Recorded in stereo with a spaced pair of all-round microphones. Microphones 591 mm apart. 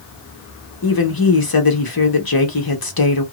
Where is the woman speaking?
35° left (ahead or behind), 0.9 m.